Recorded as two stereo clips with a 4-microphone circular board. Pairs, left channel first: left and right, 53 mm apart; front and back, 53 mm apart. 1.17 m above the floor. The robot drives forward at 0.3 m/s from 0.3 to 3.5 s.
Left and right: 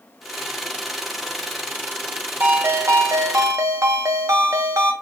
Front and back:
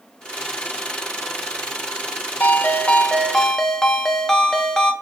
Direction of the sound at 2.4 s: 50° right.